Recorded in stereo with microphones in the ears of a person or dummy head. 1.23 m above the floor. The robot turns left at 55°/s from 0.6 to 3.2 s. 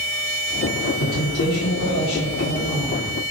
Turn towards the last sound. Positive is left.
turn(degrees=10)